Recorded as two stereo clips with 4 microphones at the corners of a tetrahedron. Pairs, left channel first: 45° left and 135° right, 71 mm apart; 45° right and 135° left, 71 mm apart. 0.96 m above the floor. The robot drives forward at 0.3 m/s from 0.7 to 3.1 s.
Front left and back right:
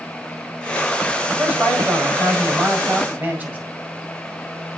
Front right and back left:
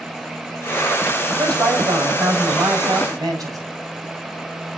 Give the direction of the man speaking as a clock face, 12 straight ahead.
7 o'clock.